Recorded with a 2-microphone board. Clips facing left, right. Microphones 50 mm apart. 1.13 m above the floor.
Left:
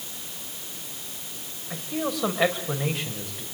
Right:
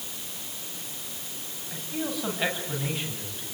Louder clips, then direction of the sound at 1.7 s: Left 3 dB; 80° left.